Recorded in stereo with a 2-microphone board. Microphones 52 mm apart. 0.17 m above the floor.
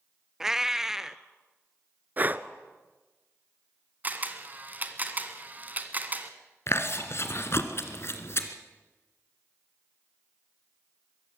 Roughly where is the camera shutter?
Right.